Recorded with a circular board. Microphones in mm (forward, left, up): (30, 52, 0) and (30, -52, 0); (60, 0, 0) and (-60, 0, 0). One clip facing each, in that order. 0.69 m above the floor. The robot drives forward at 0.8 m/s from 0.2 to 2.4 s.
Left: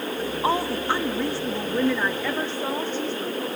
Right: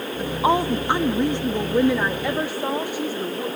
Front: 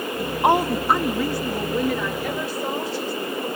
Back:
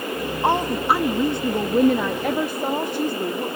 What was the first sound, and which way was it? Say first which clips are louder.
A woman speaking: right 5 dB, front 3 dB; 35° right.